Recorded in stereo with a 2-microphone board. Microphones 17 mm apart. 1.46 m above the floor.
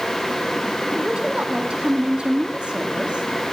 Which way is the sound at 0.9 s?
65° right (ahead or behind).